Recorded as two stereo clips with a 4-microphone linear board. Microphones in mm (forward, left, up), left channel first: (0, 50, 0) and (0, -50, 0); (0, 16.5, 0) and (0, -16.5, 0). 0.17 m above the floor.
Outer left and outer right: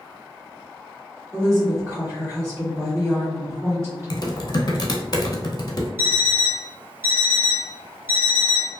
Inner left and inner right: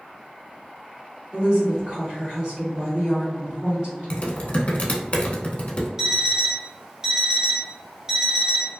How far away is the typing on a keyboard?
About 0.5 m.